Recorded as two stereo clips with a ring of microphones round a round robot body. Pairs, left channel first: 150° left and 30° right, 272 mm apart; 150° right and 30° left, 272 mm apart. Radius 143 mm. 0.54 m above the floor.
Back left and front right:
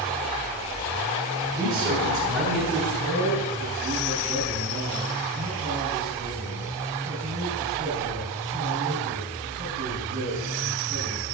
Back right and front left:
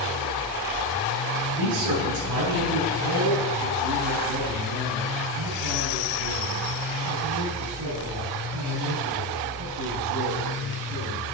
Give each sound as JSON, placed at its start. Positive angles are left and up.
{"t": 1.6, "sound": "a man speaking", "azimuth_deg": 45, "distance_m": 5.0}
{"t": 2.9, "sound": "a man speaking", "azimuth_deg": 30, "distance_m": 6.0}